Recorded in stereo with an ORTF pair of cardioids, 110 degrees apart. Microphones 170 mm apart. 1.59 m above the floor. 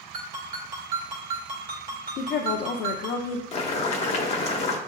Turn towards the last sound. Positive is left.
turn(degrees=40)